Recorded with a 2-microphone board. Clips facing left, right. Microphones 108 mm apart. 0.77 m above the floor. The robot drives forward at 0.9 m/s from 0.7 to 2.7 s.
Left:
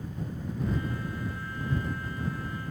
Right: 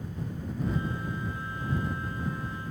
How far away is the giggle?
I don't hear a giggle.